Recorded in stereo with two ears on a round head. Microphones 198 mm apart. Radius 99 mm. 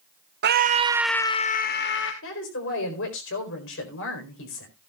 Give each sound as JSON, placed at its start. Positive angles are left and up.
{"t": 0.4, "sound": "a scream", "side_deg": -50, "distance_m": 0.8}
{"t": 2.2, "sound": "a woman speaking", "side_deg": 60, "distance_m": 4.0}